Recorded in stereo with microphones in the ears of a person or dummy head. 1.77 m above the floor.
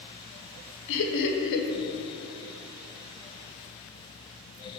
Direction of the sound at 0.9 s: 65° left (ahead or behind).